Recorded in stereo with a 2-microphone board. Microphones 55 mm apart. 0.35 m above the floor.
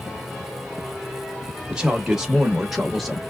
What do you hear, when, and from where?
1.7 s a man speaking: 10° right (ahead or behind), 1.0 m; by 3.2 s centre (ahead or behind), 1.0 m